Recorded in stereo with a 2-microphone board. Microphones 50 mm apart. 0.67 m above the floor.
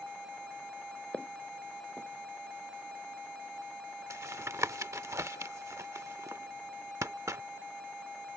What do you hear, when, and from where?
1.1 s footsteps: 30° left (ahead or behind)
4.1 s tapping: 75° right (ahead or behind)